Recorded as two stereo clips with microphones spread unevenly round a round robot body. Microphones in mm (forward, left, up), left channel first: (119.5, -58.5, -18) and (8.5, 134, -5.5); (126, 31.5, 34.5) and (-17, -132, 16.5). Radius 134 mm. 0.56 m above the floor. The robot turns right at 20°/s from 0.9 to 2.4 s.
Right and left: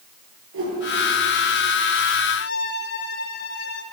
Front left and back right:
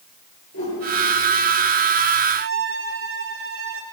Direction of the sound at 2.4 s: 110° right.